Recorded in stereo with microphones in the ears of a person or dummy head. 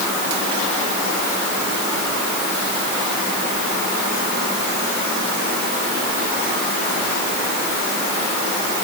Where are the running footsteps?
I don't hear running footsteps.